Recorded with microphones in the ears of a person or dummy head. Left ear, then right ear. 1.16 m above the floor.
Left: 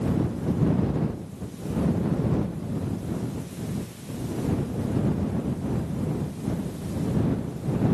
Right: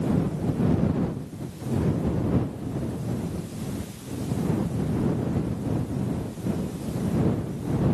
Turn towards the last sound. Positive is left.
No sound to turn to.